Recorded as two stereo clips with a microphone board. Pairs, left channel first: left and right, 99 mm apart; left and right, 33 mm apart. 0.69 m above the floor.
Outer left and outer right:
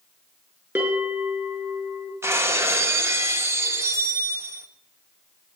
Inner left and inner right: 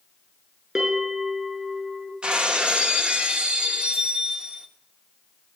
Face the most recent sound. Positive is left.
turn(degrees=-30)  # may be behind; listen again after turning